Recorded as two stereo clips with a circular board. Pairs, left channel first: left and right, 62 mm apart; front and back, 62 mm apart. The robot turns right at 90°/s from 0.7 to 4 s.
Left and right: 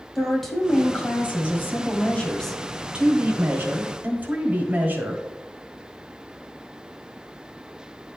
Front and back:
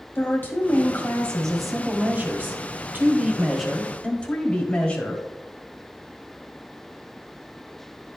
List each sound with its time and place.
0.1 s a woman speaking: 5° left, 1.5 m; by 5.2 s 55° right, 1.5 m